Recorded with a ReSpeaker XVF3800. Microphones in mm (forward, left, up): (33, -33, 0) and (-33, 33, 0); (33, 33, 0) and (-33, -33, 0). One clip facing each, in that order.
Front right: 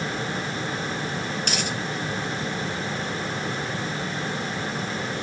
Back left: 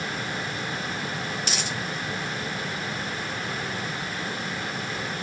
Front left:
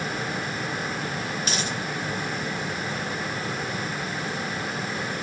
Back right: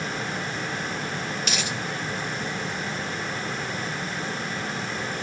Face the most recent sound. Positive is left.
turn(degrees=-10)